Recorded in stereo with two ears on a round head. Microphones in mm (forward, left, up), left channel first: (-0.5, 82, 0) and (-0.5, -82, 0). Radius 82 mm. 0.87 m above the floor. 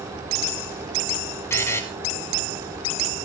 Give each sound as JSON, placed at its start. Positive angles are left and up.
{"t": 1.5, "sound": "a buzzer", "side_deg": 15, "distance_m": 1.4}